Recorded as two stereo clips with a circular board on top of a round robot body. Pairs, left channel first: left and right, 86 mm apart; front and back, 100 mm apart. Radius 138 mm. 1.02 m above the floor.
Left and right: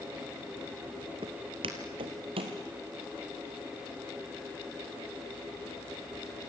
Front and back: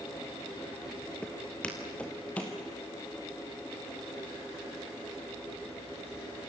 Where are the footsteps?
80° right, 1.1 m; by 2.6 s 75° right, 2 m.